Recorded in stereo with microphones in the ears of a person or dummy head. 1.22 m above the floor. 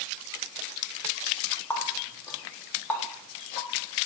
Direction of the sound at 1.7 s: 15° left (ahead or behind).